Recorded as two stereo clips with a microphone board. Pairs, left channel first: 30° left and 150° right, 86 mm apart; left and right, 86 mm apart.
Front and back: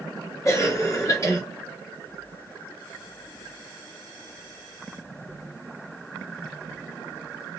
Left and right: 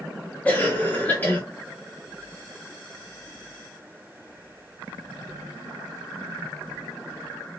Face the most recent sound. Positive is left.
turn(degrees=35)